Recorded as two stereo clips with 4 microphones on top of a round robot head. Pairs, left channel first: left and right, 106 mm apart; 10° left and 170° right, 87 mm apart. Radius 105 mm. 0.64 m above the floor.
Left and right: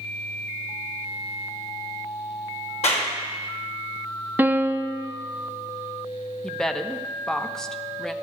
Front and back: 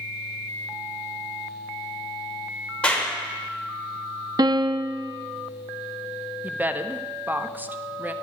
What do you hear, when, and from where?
2.8 s a clap: 90° left, 2.5 m
4.4 s a piano: 160° right, 0.6 m
6.4 s a woman speaking: 165° left, 0.7 m